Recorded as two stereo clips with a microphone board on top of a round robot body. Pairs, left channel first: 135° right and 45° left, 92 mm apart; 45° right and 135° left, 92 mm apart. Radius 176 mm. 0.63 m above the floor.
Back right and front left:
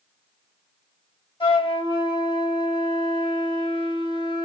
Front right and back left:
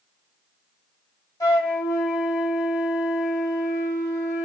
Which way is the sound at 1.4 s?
100° right.